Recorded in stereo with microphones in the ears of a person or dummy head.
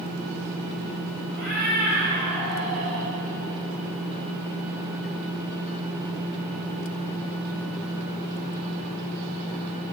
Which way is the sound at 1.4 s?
45° left (ahead or behind).